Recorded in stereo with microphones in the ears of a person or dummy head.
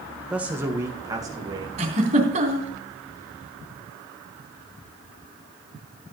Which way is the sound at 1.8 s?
40° right (ahead or behind).